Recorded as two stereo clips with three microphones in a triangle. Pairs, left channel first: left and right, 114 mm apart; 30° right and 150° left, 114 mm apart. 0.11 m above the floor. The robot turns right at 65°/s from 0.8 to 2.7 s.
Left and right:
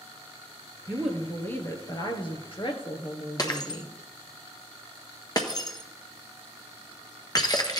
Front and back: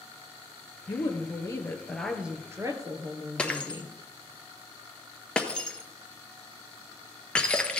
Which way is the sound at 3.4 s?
50° left.